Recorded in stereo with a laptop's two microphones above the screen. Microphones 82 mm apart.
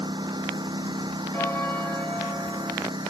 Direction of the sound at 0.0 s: 70° right (ahead or behind).